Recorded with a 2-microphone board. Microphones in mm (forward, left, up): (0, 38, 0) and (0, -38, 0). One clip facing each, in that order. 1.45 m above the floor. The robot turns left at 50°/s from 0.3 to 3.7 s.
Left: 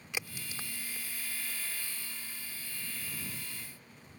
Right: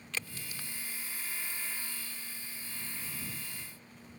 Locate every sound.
0.1 s a crack: 15° left (ahead or behind); by 1.6 s 70° left (ahead or behind)